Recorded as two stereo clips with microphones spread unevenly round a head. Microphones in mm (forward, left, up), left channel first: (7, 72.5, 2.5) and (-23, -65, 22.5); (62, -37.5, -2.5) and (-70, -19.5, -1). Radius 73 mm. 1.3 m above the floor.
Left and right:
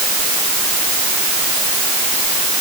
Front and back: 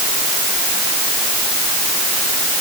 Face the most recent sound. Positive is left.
No sound to turn to.